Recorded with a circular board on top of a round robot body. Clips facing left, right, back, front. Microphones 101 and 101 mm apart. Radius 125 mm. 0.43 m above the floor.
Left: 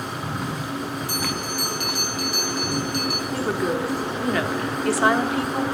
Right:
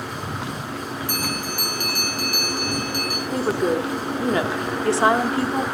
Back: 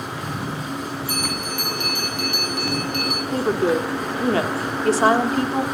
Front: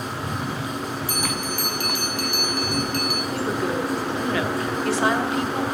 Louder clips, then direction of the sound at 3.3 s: Right 4 dB, back 7 dB; 145° right.